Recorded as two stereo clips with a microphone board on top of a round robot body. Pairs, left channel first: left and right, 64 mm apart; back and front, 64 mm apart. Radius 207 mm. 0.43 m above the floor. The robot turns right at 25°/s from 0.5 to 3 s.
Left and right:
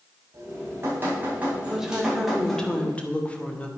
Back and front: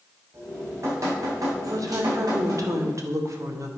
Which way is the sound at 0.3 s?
45° right.